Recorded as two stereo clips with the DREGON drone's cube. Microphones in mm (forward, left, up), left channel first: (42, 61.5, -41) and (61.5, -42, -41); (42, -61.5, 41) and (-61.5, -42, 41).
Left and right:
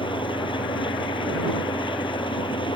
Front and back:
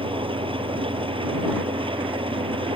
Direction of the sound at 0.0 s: 135° left.